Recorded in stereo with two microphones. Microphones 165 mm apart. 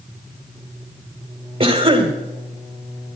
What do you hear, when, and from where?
1.6 s a cough: 35° right (ahead or behind), 1.9 m